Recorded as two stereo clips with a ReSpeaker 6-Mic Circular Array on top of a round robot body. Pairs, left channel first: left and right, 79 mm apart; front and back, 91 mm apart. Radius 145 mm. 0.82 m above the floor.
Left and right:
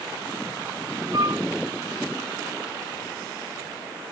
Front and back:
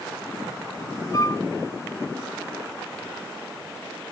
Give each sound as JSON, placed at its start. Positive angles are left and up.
{"t": 1.1, "sound": "a flute", "azimuth_deg": -50, "distance_m": 1.0}